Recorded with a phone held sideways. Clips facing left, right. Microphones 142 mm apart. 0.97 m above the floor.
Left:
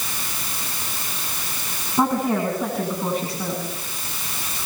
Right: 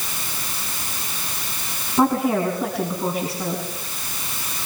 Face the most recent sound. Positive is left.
turn(degrees=-5)  # may be behind; listen again after turning